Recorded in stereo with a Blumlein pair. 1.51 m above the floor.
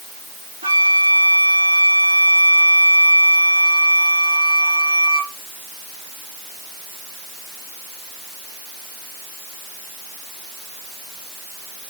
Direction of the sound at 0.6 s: 70° right.